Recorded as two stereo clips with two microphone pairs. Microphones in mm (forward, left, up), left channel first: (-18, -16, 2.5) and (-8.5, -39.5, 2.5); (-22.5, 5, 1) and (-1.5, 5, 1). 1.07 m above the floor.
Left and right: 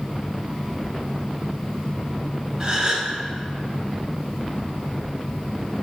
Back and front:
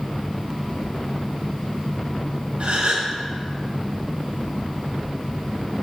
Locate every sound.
2.6 s a gasp: 10° right, 0.8 m